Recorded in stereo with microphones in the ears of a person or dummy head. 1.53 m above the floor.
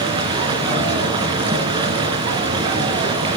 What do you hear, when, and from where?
0.0 s running water: 30° right (ahead or behind), 3 m